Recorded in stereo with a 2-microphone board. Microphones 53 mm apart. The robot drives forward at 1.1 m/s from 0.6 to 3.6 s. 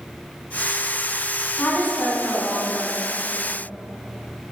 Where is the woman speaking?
35° left (ahead or behind), 1.1 m; by 3.1 s 20° left (ahead or behind), 1.9 m.